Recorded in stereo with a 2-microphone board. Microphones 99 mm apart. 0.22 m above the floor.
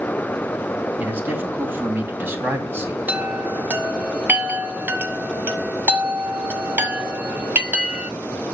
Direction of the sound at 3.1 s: 20° right (ahead or behind).